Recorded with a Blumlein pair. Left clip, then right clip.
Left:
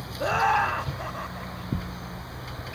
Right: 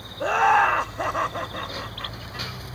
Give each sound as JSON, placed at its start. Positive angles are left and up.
{"t": 0.2, "sound": "laughter", "azimuth_deg": -5}